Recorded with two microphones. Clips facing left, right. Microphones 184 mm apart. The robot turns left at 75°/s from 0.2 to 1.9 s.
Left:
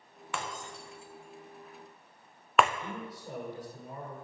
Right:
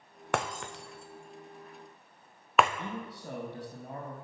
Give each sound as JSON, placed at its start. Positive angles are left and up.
{"t": 0.3, "sound": "breaking glass", "side_deg": -60, "distance_m": 0.7}
{"t": 2.8, "sound": "a man speaking", "side_deg": -60, "distance_m": 4.0}